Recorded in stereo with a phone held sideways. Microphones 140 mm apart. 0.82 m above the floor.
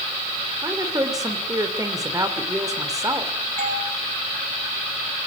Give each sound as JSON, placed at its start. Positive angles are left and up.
{"t": 0.6, "sound": "a woman speaking", "side_deg": -25, "distance_m": 3.0}
{"t": 3.6, "sound": "a doorbell", "side_deg": -70, "distance_m": 7.5}